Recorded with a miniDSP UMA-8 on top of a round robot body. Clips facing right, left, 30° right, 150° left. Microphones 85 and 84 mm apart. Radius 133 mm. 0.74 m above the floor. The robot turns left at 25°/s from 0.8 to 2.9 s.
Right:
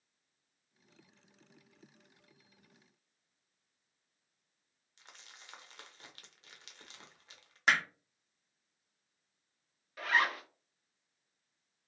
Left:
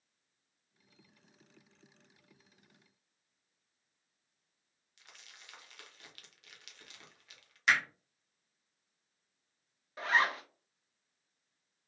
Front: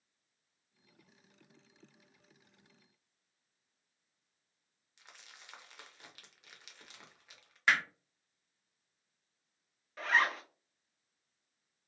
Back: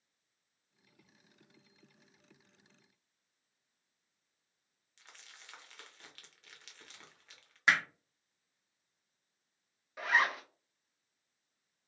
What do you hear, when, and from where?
5.0 s crumpling: 100° right, 0.9 m
7.7 s hammering: 140° right, 0.6 m
10.0 s a zipper: 80° left, 0.9 m